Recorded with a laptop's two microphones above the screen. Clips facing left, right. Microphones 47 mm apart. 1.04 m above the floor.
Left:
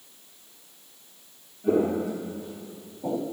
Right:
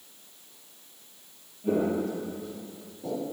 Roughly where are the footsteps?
Centre.